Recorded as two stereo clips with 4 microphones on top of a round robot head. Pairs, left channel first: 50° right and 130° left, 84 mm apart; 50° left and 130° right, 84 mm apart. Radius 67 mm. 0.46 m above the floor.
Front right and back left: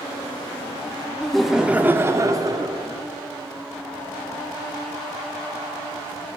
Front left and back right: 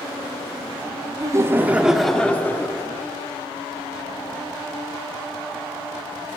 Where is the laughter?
130° right, 1.1 m; by 2.9 s 105° left, 1.5 m.